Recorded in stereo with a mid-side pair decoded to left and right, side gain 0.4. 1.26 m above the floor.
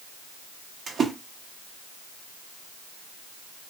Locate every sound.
0.9 s a splash: 60° right, 1.1 m